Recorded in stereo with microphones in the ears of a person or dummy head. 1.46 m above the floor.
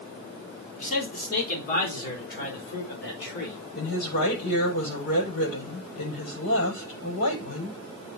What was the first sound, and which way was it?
A man speaking, 50° left (ahead or behind).